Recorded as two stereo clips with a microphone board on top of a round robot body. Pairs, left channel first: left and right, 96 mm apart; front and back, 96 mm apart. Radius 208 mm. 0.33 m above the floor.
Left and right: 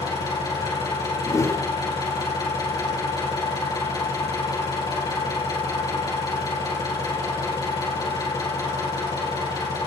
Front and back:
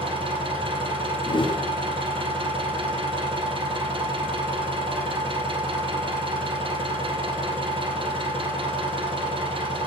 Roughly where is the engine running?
Behind left.